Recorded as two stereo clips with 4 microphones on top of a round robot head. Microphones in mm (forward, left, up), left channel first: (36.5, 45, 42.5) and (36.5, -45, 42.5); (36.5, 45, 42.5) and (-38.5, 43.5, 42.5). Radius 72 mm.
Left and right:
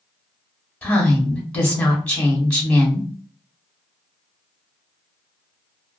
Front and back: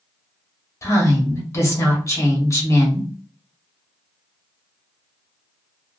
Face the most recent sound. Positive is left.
turn(degrees=20)